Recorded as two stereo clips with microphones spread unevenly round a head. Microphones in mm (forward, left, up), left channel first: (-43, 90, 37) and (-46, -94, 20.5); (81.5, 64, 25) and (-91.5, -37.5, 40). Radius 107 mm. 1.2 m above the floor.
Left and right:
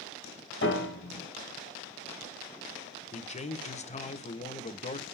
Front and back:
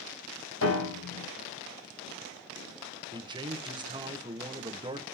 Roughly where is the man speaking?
Behind left.